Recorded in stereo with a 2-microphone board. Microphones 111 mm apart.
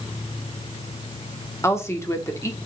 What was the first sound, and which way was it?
A woman speaking, 25° left (ahead or behind).